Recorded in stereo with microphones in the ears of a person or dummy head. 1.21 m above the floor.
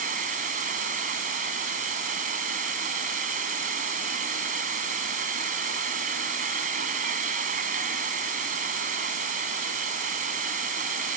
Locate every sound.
0.0 s an insect: 45° right (ahead or behind)